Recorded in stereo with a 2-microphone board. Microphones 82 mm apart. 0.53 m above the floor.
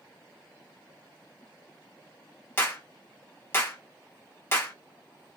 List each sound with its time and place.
2.6 s a clap: 25° left (ahead or behind), 0.9 m